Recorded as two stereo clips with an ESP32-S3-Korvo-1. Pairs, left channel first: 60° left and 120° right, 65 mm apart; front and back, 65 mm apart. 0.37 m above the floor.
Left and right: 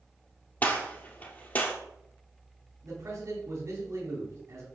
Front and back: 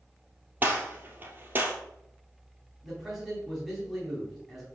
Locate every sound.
0.6 s a gunshot: 120° left, 2 m
2.8 s a man speaking: 95° right, 3.5 m